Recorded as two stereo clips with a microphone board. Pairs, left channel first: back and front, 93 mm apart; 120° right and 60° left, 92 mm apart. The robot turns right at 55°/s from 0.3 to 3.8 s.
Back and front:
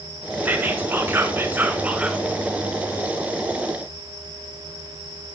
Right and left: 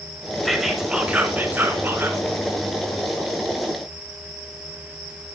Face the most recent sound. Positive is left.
turn(degrees=150)